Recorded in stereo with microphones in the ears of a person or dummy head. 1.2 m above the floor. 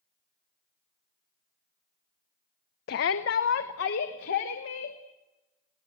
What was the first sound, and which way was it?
A shout, 60° left (ahead or behind).